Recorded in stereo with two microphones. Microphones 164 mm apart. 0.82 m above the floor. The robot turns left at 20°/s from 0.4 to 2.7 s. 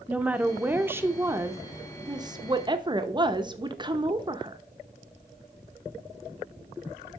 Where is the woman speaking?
15° right, 0.5 m; by 4.6 s 65° right, 0.5 m.